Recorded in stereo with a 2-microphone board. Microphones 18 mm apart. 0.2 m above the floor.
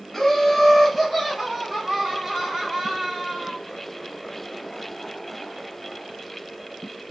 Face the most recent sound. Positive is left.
turn(degrees=-35)  # may be behind; listen again after turning